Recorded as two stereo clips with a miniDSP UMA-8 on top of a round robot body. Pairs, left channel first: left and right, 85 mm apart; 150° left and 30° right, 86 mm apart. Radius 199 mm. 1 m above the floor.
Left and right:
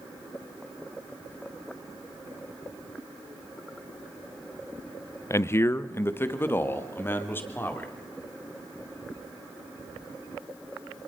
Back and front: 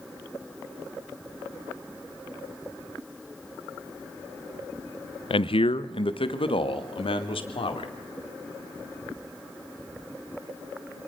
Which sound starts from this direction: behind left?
A man speaking, at 5.3 s.